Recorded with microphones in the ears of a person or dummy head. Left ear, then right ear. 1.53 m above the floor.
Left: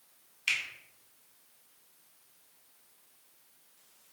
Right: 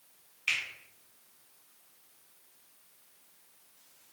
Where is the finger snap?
20° left (ahead or behind), 1.2 m.